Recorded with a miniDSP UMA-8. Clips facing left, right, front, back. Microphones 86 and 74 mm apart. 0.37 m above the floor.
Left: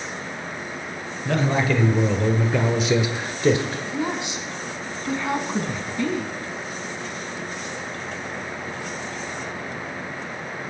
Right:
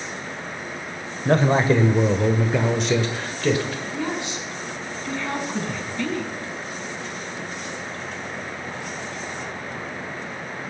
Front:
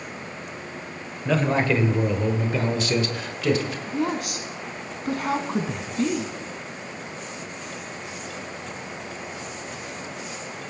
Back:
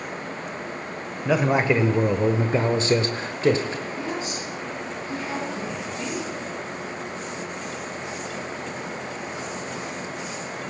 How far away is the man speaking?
About 1.6 m.